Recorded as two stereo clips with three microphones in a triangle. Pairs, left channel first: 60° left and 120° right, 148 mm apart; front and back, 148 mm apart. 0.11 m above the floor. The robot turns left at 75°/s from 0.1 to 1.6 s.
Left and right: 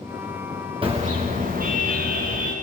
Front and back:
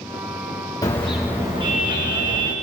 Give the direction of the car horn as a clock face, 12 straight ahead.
2 o'clock.